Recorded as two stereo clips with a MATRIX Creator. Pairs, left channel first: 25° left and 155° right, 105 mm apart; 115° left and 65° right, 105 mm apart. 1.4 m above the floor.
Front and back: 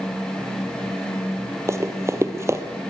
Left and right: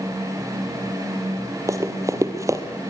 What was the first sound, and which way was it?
Running footsteps, 110° right.